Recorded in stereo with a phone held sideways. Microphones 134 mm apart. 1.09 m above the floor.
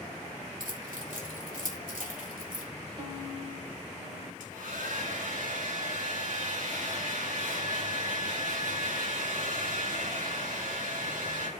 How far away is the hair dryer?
About 2.5 m.